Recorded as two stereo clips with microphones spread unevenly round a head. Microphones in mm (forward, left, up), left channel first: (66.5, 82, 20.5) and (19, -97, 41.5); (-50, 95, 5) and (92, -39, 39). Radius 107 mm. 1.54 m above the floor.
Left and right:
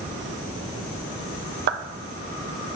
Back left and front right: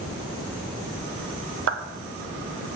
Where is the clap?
75° right, 1.1 m.